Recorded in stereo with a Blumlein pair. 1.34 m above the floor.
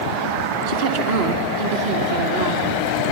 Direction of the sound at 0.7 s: 55° right.